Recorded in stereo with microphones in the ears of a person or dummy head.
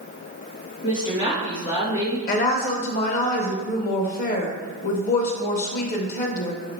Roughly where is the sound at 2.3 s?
Left.